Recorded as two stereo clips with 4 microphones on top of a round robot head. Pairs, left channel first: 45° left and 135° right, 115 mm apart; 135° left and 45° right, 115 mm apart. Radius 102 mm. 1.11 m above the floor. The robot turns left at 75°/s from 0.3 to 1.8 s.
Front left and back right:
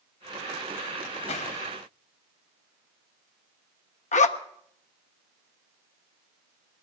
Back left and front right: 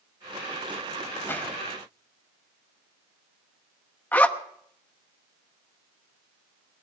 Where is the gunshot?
65° left, 3.5 m; by 1.6 s 40° left, 3.5 m.